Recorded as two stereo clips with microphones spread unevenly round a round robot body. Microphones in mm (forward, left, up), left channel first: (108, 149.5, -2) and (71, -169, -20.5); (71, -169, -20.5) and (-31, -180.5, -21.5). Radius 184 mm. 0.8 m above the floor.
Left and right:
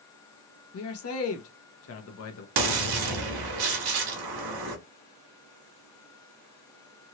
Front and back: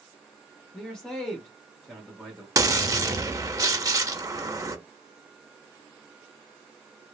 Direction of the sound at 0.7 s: 80° left.